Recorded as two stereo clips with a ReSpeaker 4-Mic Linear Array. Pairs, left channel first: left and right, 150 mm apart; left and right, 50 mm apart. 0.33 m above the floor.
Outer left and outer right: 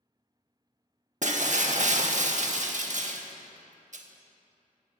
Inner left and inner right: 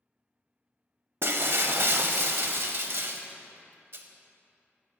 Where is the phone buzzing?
No phone buzzing in this recording.